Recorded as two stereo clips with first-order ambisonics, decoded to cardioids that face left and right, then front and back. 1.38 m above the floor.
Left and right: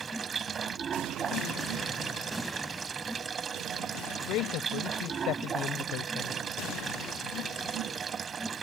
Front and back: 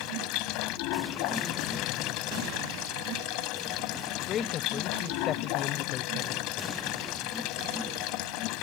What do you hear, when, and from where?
0.0 s running water: 20° right
4.3 s a man speaking: 55° left